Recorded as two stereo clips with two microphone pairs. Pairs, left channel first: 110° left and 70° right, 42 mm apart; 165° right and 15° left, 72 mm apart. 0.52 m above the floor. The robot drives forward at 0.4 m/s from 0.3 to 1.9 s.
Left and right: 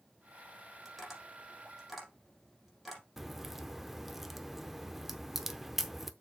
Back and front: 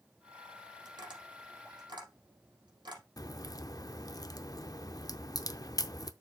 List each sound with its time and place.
0.8 s tapping: 25° left, 5.5 m
3.2 s a crack: 155° right, 0.6 m